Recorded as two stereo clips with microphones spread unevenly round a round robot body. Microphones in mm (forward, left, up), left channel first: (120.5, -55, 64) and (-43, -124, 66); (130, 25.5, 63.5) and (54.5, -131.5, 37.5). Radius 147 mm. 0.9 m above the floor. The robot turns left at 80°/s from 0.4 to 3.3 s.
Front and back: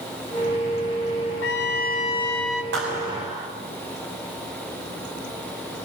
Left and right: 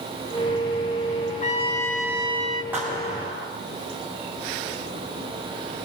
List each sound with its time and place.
1.4 s a trumpet: 20° left, 2.5 m; by 2.6 s 75° right, 2.5 m
2.7 s a clap: 160° left, 4.5 m; by 3.5 s 115° left, 4.5 m